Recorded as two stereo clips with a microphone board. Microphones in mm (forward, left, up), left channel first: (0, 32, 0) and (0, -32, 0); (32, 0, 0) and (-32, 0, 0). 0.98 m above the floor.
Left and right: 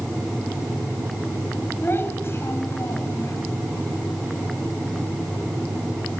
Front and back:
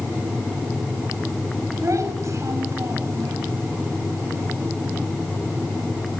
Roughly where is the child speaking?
Behind left.